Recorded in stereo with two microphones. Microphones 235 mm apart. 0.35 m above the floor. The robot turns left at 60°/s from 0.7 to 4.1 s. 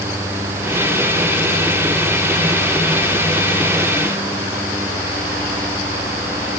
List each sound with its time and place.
Only background noise.